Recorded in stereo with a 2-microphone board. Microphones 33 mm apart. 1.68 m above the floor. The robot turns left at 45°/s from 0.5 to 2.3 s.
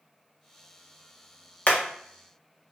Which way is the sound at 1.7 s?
45° left (ahead or behind).